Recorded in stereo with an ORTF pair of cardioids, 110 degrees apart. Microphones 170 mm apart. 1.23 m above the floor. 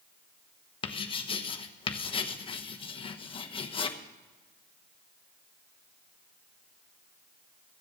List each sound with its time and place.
0.8 s writing: 30° left, 1.2 m